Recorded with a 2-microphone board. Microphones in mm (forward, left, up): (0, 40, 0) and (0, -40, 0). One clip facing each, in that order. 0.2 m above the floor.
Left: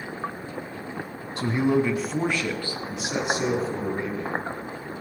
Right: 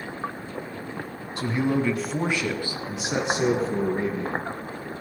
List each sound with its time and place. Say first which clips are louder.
1.4 s a man speaking: left 2 dB; 35° left (ahead or behind), 1.5 m; by 4.5 s 35° right (ahead or behind), 5 m